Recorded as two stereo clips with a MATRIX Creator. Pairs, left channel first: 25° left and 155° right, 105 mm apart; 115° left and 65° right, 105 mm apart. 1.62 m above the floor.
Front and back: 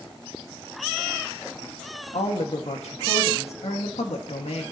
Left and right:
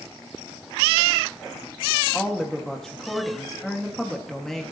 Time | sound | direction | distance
2.1 | a woman speaking | 25° left | 1.7 m